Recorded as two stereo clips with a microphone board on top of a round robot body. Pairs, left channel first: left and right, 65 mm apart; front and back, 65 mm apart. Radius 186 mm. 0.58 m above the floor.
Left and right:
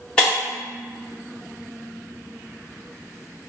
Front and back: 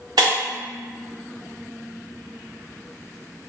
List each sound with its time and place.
0.2 s breaking glass: 165° left, 1.4 m